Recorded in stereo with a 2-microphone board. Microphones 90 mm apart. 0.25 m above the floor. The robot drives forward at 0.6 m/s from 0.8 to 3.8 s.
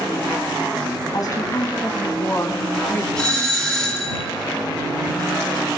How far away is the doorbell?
About 5 m.